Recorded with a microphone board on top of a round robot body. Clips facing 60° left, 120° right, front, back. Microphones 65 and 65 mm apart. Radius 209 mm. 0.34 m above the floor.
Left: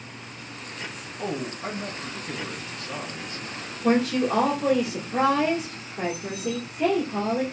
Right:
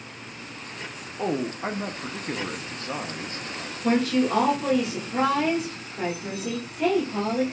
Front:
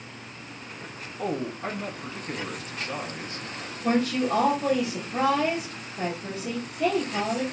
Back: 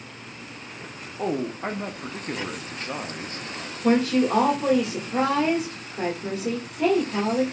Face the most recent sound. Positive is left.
turn(degrees=140)